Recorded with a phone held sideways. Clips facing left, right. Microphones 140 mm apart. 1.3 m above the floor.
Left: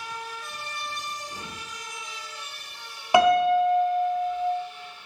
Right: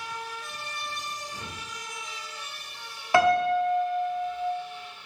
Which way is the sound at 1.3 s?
60° left (ahead or behind).